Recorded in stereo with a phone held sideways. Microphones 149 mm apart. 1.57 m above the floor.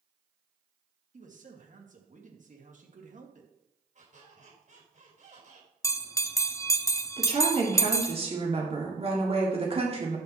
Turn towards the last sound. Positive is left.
turn(degrees=-40)  # may be behind; listen again after turning